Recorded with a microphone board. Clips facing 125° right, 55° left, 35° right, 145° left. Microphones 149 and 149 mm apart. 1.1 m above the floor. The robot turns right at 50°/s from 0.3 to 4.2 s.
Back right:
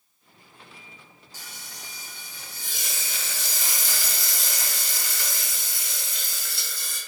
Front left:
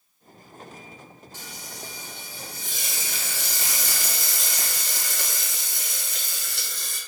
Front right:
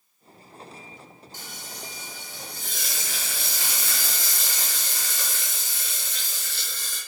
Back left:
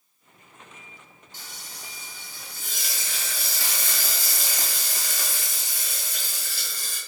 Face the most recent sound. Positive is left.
turn(degrees=70)